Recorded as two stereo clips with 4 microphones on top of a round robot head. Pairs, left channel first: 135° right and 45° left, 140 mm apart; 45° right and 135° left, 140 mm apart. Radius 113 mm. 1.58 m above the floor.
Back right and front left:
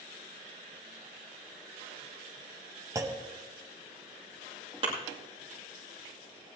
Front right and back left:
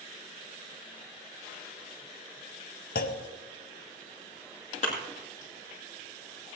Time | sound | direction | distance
3.0 | a clunk | 25° right | 0.6 m
4.8 | a thud | 5° right | 2 m